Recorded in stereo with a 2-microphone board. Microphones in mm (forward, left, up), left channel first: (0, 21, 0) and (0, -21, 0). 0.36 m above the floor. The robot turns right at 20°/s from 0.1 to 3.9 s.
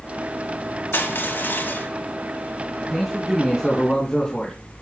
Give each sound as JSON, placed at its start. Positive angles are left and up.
{"t": 0.9, "sound": "crushing", "side_deg": 65, "distance_m": 2.5}
{"t": 2.8, "sound": "a man speaking", "side_deg": -5, "distance_m": 2.5}